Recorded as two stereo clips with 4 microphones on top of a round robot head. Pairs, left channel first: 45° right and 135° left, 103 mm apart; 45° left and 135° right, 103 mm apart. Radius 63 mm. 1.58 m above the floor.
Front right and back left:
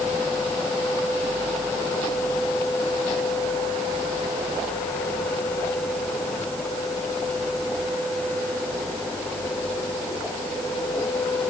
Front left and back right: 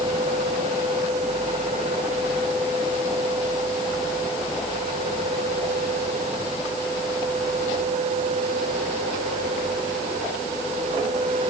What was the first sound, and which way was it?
Only background noise.